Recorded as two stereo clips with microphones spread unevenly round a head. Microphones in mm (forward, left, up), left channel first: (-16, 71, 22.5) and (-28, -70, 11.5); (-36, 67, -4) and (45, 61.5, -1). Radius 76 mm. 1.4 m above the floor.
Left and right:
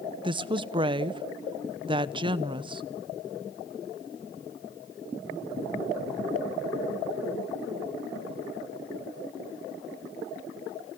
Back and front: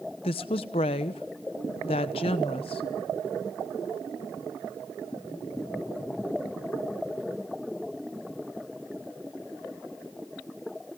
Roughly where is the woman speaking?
Behind right.